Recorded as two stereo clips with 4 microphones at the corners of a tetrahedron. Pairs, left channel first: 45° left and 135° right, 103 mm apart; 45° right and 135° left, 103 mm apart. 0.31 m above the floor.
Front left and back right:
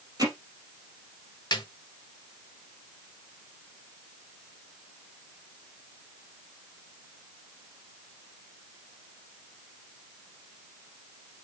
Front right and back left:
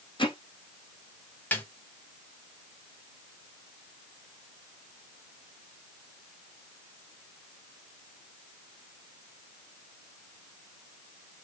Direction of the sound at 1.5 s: 20° left.